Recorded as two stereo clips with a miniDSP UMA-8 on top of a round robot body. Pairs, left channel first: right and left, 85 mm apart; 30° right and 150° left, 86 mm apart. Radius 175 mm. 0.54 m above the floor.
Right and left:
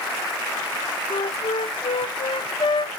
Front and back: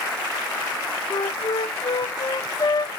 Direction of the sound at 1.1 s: 70° right.